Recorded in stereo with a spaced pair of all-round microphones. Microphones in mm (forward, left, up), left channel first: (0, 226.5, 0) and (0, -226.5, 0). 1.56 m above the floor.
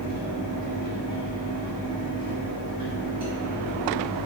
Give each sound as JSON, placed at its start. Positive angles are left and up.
{"t": 0.0, "sound": "a fan", "side_deg": -10, "distance_m": 1.7}